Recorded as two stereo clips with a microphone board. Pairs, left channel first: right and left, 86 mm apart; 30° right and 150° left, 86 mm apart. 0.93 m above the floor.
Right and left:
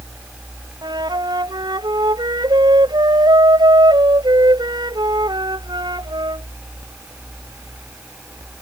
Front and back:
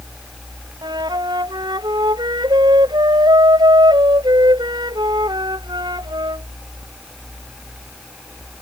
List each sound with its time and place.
0.8 s a flute: 120° left